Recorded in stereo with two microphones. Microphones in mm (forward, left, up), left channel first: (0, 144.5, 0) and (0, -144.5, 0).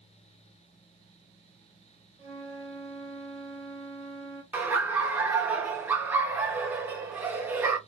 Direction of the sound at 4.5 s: 5° right (ahead or behind).